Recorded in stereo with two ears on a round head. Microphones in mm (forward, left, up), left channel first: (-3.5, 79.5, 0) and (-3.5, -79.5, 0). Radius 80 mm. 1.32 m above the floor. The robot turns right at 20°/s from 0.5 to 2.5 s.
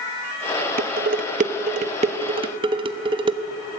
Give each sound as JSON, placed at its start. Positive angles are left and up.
{"t": 0.8, "sound": "dishes clattering", "side_deg": -55, "distance_m": 0.9}